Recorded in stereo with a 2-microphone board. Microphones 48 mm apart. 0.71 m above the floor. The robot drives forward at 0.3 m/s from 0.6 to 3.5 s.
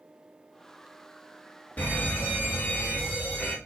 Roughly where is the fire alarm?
Left.